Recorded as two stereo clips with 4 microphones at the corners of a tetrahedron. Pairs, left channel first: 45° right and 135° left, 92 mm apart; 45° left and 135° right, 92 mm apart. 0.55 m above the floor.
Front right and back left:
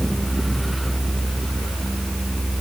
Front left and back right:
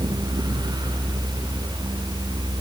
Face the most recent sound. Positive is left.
No sound to turn to.